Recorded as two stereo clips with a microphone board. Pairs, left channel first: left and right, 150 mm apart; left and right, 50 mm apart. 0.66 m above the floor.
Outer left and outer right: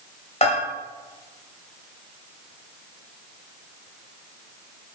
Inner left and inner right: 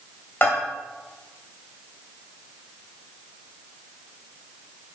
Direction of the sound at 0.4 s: 45° left (ahead or behind).